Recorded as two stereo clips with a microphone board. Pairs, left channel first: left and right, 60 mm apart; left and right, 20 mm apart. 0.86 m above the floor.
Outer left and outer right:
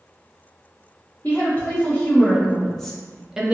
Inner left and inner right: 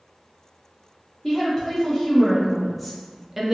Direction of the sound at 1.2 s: 30° left (ahead or behind).